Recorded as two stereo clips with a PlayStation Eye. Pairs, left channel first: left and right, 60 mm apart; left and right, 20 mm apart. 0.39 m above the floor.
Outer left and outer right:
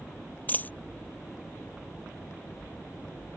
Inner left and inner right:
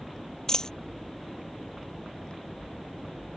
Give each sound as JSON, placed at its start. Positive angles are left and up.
{"t": 0.5, "sound": "a dropped coin", "side_deg": 30}